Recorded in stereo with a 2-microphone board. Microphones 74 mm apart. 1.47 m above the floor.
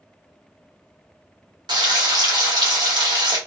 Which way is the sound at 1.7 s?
75° right (ahead or behind).